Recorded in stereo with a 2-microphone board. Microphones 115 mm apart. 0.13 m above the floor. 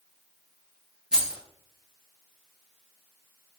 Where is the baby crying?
I don't hear a baby crying.